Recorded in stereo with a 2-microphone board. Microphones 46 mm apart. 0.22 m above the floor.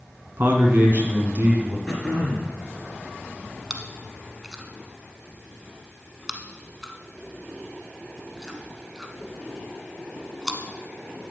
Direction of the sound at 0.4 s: 50° right (ahead or behind).